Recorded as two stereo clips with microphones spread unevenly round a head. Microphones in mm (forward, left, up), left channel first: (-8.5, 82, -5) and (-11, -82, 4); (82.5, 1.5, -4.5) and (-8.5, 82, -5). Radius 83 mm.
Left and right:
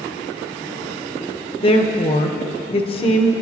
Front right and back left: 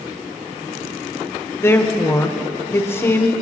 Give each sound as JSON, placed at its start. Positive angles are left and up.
{"t": 1.6, "sound": "a woman speaking", "azimuth_deg": 30, "distance_m": 1.1}